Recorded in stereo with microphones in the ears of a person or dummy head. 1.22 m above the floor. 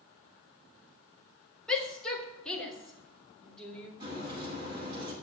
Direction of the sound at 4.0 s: 25° right (ahead or behind).